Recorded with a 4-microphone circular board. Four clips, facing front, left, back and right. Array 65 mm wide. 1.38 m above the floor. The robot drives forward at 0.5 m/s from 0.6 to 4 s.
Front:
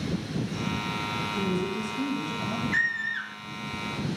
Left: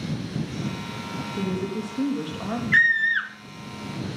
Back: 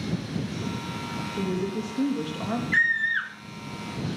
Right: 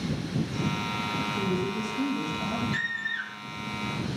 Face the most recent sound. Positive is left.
turn(degrees=130)